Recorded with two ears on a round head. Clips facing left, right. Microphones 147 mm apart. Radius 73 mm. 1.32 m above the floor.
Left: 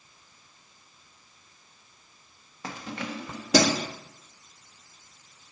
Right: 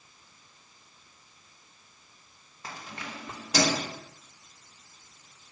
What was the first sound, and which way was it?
Keys jangling, 55° left (ahead or behind).